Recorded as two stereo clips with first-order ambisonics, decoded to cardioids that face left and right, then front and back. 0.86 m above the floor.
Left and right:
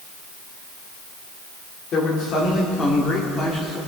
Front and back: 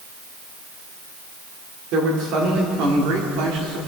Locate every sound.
1.9 s a man speaking: 145° left, 2.5 m; by 3.8 s 170° left, 2.5 m